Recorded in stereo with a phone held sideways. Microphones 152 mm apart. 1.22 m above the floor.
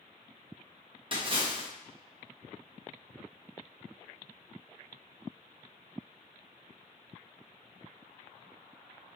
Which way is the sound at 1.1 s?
35° right (ahead or behind).